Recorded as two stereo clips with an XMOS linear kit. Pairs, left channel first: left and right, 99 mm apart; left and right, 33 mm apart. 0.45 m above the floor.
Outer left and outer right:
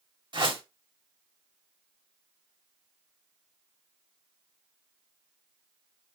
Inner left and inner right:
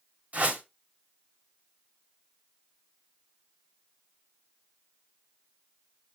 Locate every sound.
0.3 s a whoosh: 55° right (ahead or behind), 1.8 m